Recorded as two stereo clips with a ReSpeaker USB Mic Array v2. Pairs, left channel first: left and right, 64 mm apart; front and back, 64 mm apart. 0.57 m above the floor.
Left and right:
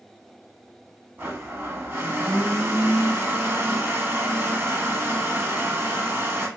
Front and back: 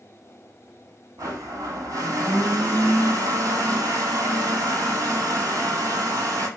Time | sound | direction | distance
1.2 | a blender | 155° right | 1.8 m